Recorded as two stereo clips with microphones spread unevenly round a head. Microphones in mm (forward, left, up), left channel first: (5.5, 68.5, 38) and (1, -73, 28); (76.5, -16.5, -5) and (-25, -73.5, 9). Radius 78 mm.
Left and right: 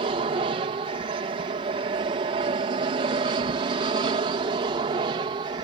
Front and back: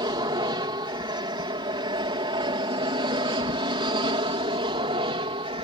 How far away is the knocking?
No knocking in this recording.